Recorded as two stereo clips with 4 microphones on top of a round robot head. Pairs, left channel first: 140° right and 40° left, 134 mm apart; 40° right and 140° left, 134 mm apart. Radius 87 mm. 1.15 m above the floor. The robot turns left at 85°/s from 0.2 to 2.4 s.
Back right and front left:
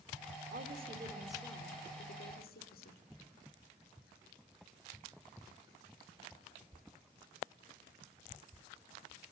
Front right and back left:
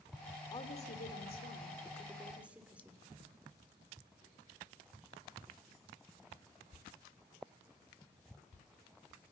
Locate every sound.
0.5 s a woman speaking: 20° left, 3 m; by 3.0 s 140° right, 3 m